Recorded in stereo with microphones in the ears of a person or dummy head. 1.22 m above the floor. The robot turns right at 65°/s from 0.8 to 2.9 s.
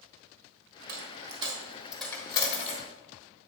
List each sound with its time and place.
0.9 s a dropped coin: 55° right (ahead or behind), 1.5 m; by 2.8 s 45° left (ahead or behind), 1.5 m